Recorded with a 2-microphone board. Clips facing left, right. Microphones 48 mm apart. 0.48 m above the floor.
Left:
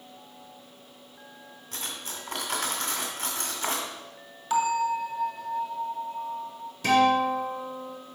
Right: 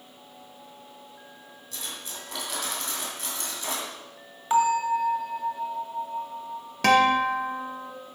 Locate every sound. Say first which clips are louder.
1.7 s cutlery clinking: left 1 dB; 45° left (ahead or behind), 2 m
4.5 s a bell: right 3 dB; 30° right (ahead or behind), 1.2 m
6.8 s a guitar: right 2 dB; 85° right, 1.1 m